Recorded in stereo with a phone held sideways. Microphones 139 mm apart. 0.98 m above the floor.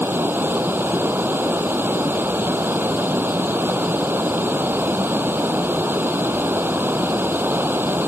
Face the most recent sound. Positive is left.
turn(degrees=-15)  # may be behind; listen again after turning